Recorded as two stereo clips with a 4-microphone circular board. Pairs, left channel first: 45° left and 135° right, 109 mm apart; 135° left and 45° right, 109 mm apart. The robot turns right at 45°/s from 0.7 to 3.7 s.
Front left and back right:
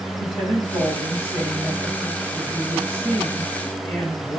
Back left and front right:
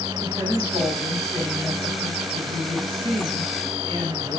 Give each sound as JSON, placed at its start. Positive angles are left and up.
{"t": 0.2, "sound": "a woman speaking", "azimuth_deg": -165, "distance_m": 4.0}